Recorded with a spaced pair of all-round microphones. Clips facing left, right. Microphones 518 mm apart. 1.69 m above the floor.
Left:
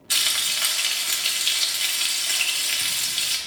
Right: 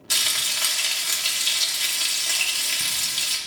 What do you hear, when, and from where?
0.1 s frying: 60° right (ahead or behind), 1.2 m